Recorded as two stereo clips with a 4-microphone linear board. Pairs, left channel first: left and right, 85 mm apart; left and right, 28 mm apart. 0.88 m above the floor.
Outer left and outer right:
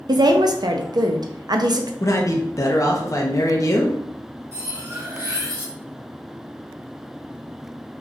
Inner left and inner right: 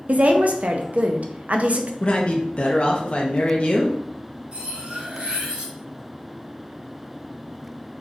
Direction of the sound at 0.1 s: 55° right (ahead or behind).